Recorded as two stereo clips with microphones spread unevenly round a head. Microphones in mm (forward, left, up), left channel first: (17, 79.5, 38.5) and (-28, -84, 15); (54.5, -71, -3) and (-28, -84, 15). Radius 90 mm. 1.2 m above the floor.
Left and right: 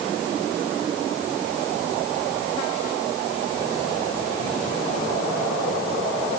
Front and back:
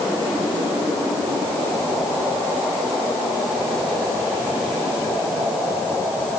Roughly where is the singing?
I don't hear singing.